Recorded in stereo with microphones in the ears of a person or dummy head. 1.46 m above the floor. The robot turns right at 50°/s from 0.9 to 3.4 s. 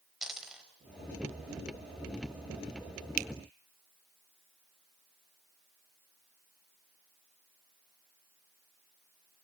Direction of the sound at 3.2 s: 40° right (ahead or behind).